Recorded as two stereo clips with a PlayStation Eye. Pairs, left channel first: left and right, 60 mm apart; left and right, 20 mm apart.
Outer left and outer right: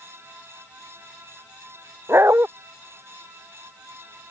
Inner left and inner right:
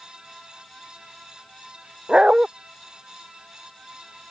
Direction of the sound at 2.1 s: 45° right (ahead or behind).